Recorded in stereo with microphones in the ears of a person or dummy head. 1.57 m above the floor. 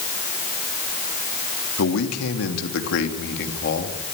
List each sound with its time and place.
1.8 s a man speaking: 85° left, 3.5 m; by 4.0 s 45° left (ahead or behind), 3.5 m